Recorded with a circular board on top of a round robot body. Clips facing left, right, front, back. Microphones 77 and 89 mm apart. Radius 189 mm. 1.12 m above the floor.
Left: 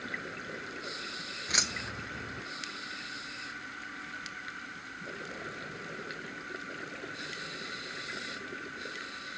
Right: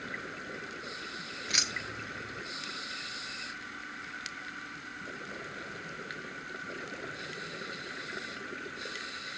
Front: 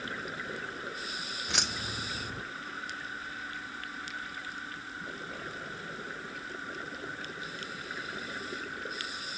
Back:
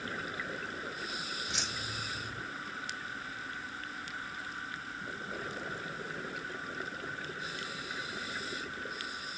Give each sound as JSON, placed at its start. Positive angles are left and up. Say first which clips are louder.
{"t": 1.5, "sound": "keys jangling", "louder": "left 2 dB, front 3 dB", "azimuth_deg": 30, "distance_m": 0.8}